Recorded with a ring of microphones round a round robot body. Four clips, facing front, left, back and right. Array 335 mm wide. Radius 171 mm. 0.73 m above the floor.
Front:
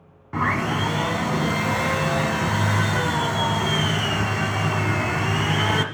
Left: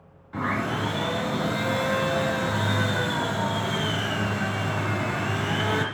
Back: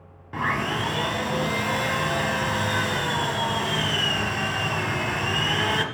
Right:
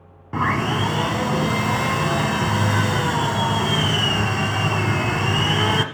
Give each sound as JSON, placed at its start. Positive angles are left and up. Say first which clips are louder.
{"t": 0.3, "sound": "sawing", "louder": "right 6 dB, front 3 dB", "azimuth_deg": -75, "distance_m": 1.4}